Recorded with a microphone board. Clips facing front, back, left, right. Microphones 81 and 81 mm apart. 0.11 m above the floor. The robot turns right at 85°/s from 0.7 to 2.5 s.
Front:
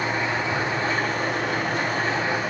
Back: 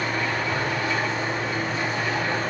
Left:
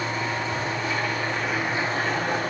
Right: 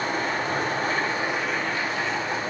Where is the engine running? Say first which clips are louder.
Front 1 dB, right 1 dB; 65° right, 7 m; by 2.5 s 85° left, 7 m.